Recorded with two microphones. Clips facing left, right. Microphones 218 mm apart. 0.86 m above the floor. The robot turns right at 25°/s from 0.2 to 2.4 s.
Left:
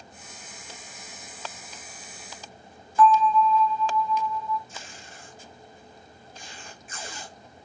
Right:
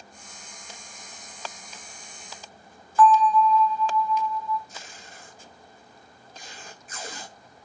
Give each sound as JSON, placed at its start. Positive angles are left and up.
{"t": 3.0, "sound": "a bell", "side_deg": 25, "distance_m": 0.9}
{"t": 4.7, "sound": "tape being pulled", "side_deg": -40, "distance_m": 1.1}